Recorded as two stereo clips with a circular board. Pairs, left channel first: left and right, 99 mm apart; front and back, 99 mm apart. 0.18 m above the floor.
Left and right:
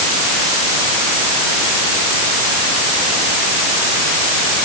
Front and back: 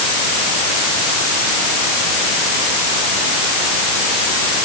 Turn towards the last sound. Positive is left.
No sound to turn to.